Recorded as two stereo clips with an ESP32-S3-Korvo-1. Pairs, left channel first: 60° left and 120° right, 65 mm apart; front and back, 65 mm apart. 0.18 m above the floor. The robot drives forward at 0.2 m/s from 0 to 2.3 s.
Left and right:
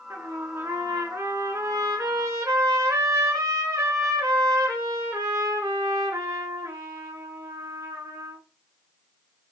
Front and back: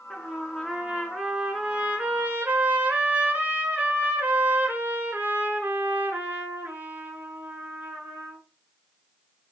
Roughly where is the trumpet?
Right.